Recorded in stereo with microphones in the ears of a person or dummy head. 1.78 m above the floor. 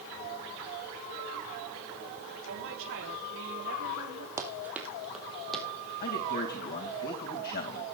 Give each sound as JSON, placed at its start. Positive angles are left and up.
{"t": 2.5, "sound": "a woman speaking", "side_deg": -75, "distance_m": 5.5}
{"t": 4.4, "sound": "running footsteps", "side_deg": -15, "distance_m": 3.0}
{"t": 6.0, "sound": "a man speaking", "side_deg": 50, "distance_m": 2.5}